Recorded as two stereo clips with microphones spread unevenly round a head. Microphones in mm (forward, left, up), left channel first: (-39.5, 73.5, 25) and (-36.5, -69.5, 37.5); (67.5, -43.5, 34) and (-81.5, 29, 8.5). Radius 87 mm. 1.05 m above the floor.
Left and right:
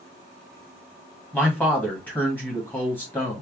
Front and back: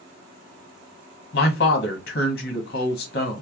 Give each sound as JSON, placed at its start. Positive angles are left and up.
{"t": 1.3, "sound": "a man speaking", "azimuth_deg": 10, "distance_m": 1.3}